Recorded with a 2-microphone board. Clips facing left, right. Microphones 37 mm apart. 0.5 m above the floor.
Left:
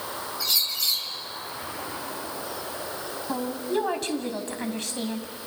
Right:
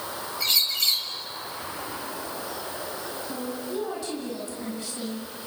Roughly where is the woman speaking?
Left.